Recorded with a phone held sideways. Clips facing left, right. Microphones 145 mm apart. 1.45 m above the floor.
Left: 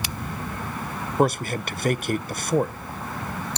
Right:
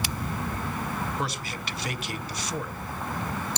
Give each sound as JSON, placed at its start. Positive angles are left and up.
{"t": 1.2, "sound": "a man speaking", "side_deg": 50, "distance_m": 0.6}